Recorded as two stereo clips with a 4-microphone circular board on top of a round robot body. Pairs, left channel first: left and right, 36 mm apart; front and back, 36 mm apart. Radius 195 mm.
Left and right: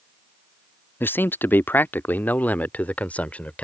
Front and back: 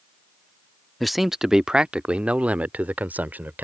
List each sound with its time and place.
1.0 s a man speaking: 90° left; by 3.6 s 140° left